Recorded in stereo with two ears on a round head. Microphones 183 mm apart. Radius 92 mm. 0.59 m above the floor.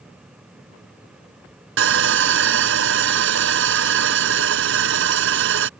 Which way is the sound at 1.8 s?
70° right (ahead or behind).